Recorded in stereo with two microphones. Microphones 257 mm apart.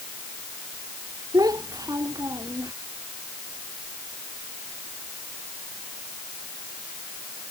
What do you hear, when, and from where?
1.3 s a child speaking: 15° right (ahead or behind); by 2.7 s 10° right (ahead or behind)